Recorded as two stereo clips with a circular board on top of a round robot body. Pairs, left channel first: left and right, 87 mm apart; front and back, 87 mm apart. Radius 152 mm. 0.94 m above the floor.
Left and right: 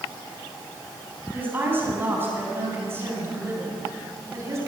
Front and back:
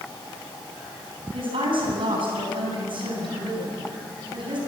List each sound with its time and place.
1.3 s a woman speaking: 160° right, 9 m; by 4.6 s 150° right, 9 m